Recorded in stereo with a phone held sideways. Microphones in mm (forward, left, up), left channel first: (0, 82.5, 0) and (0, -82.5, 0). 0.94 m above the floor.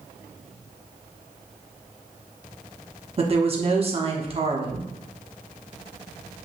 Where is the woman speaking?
40° right (ahead or behind), 0.9 m.